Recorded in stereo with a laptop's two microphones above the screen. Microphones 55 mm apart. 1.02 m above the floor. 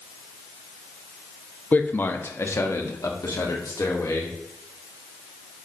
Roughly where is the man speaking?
Left.